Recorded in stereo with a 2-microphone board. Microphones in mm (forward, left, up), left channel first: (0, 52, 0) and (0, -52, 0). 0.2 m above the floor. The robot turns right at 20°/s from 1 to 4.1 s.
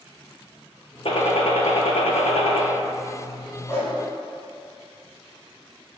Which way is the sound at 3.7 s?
30° left (ahead or behind).